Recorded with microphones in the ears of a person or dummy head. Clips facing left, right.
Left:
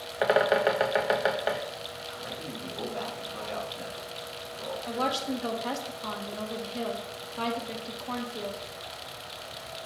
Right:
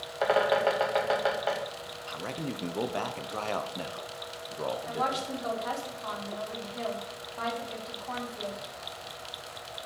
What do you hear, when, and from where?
0.2 s a bird: 20° left (ahead or behind), 0.6 m
2.1 s a man speaking: 70° right (ahead or behind), 0.8 m
4.9 s a woman speaking: 40° left (ahead or behind), 1.6 m